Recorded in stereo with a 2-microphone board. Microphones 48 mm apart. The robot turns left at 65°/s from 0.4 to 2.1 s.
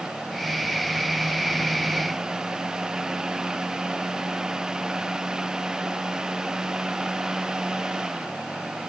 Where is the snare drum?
I don't hear a snare drum.